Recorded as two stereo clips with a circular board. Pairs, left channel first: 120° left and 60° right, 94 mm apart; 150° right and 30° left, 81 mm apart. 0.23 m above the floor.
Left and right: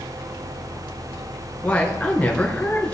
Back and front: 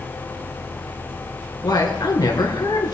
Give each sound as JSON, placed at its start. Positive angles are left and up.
{"t": 1.6, "sound": "a woman speaking", "azimuth_deg": -165, "distance_m": 2.5}